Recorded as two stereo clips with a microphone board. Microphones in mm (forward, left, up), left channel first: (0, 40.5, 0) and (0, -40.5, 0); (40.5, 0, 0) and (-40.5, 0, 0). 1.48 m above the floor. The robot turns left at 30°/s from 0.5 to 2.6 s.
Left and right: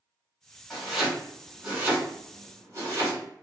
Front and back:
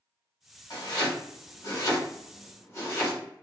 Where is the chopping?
5° left, 1.7 m; by 3.2 s 55° right, 1.7 m.